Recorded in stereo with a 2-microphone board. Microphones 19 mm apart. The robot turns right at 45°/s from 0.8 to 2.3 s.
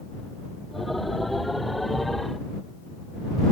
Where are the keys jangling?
No keys jangling in this recording.